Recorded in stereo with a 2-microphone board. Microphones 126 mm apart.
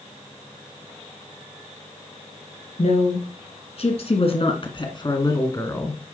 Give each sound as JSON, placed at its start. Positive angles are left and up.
{"t": 2.8, "sound": "a woman speaking", "side_deg": 60, "distance_m": 2.5}